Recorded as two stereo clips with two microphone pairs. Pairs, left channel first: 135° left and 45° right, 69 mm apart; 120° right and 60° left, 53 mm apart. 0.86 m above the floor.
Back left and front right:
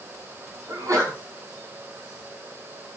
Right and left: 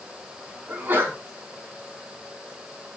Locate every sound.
0.7 s a sneeze: 5° left, 7 m